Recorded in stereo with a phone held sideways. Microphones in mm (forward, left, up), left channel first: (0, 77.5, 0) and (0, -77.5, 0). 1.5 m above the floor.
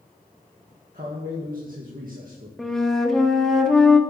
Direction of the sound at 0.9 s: 65° right (ahead or behind).